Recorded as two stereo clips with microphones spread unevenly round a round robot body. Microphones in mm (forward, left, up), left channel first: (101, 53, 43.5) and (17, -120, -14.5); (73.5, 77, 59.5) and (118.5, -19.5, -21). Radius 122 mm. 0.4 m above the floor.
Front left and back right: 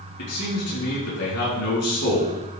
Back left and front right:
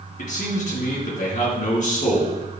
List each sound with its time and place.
0.2 s a man speaking: 95° left, 4.5 m